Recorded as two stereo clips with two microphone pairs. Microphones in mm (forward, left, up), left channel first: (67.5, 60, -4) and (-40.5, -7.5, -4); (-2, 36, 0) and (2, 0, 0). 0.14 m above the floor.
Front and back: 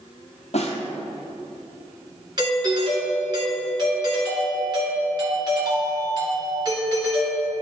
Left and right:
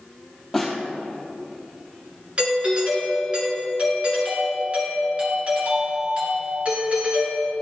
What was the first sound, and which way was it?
A snare drum, 10° left.